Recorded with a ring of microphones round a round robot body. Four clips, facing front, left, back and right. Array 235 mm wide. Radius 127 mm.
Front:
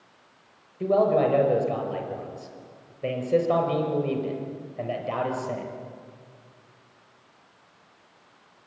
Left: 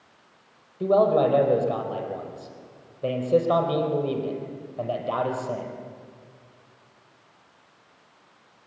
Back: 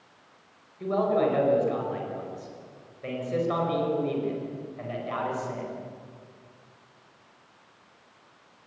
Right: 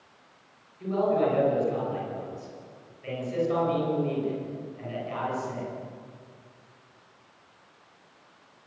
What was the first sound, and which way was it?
A man speaking, 60° left.